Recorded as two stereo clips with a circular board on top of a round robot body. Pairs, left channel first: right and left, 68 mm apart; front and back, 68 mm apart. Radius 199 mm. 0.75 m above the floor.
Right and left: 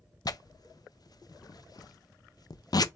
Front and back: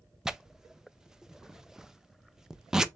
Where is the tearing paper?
100° right, 0.5 m.